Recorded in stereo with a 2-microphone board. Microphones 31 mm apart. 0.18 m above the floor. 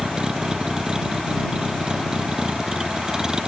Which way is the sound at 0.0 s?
25° right (ahead or behind).